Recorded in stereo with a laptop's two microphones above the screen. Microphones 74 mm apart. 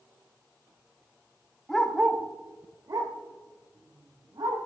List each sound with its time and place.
1.7 s a dog barking: 5° left (ahead or behind), 0.9 m; by 4.6 s 75° right (ahead or behind), 2.5 m